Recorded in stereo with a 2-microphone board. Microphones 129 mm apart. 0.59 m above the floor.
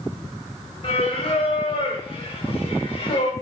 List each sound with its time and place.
0.8 s singing: 45° left (ahead or behind), 0.7 m